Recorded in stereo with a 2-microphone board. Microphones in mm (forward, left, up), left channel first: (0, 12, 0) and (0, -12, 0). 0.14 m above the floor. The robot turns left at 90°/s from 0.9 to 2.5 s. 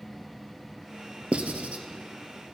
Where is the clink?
No clink in this recording.